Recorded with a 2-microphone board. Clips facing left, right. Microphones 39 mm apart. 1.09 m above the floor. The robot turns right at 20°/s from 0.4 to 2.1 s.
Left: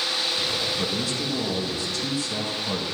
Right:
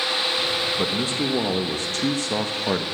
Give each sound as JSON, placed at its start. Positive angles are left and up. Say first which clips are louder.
{"t": 0.8, "sound": "a man speaking", "louder": "right 3 dB", "side_deg": -35, "distance_m": 0.9}